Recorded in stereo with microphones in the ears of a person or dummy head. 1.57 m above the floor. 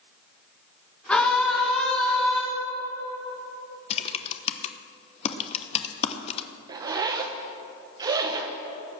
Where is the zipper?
20° right (ahead or behind), 0.7 m.